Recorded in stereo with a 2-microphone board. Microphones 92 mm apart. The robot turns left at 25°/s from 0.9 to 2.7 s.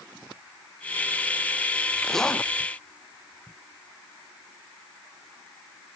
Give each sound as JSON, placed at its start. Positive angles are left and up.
{"t": 2.0, "sound": "a zipper", "side_deg": 0}